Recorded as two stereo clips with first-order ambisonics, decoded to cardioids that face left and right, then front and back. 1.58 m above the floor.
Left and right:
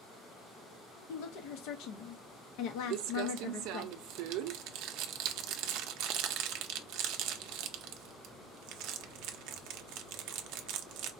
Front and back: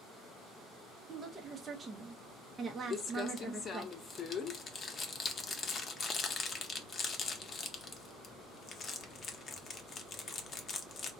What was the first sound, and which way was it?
A woman speaking, 105° left.